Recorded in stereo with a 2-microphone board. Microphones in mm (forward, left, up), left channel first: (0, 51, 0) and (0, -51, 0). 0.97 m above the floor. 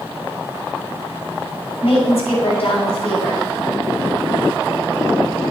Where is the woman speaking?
85° left, 6 m.